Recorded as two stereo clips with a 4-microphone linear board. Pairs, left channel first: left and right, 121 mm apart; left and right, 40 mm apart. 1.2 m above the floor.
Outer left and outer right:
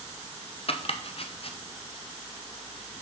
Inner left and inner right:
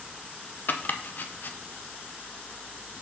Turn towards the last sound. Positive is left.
turn(degrees=50)  # may be behind; listen again after turning